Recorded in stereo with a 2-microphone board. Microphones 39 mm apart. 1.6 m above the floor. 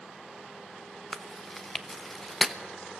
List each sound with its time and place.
1.1 s chewing: 5° left (ahead or behind), 0.9 m